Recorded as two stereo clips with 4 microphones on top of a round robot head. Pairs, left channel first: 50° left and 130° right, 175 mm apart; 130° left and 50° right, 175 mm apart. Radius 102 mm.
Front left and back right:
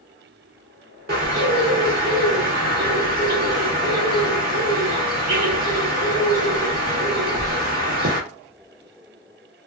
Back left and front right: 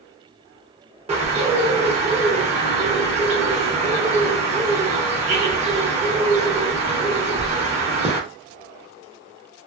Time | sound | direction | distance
1.1 | a bird | 100° right | 0.9 m